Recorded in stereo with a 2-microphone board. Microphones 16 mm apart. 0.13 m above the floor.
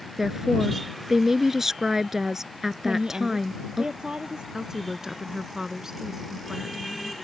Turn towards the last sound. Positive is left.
turn(degrees=-30)  # may be behind; listen again after turning